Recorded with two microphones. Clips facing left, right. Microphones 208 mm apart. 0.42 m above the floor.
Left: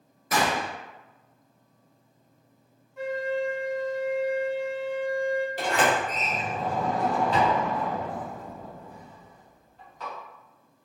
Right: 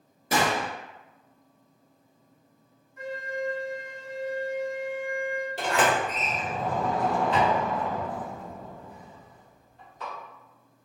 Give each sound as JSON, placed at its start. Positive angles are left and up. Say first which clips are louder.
{"t": 0.3, "sound": "a gunshot", "louder": "right 1 dB", "side_deg": -30, "distance_m": 0.6}
{"t": 3.0, "sound": "a flute", "louder": "left 5 dB", "side_deg": 75, "distance_m": 0.7}
{"t": 5.6, "sound": "a sliding door", "louder": "even", "side_deg": -35, "distance_m": 1.6}